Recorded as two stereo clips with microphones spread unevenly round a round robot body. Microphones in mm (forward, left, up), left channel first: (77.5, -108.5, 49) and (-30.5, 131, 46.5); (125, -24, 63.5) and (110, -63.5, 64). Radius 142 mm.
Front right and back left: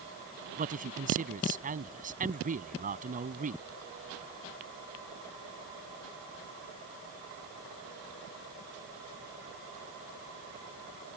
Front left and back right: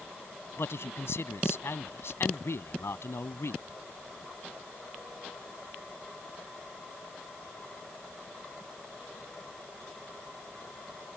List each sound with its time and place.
0.6 s a man speaking: 55° left